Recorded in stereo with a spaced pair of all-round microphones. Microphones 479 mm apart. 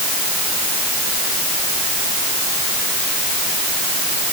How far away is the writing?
I don't hear writing.